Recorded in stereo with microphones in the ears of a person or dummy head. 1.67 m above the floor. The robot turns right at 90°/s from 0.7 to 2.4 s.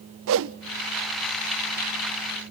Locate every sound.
0.3 s a whoosh: 65° right (ahead or behind), 0.6 m